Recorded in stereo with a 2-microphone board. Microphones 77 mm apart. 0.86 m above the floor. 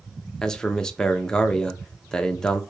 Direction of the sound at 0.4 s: 10° left (ahead or behind).